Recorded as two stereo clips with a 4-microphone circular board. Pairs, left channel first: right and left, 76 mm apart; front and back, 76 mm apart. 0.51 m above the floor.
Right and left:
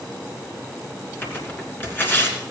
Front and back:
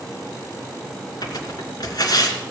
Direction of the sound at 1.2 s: 30° right.